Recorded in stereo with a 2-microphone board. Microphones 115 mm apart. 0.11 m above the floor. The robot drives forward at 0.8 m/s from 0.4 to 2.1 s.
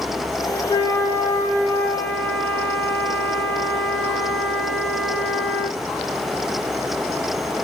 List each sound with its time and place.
0.7 s a flute: 40° left (ahead or behind), 0.5 m; by 5.8 s 15° left (ahead or behind), 1.5 m